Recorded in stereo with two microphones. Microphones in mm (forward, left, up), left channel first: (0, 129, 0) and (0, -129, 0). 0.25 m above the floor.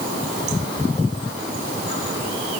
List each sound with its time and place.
Only background noise.